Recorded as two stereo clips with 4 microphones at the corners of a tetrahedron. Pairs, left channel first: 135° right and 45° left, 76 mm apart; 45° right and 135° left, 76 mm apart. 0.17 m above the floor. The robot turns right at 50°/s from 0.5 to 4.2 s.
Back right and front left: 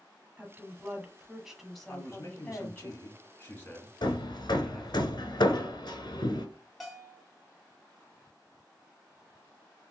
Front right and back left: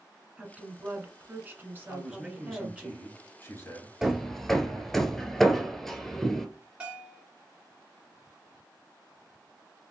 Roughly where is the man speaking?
Behind.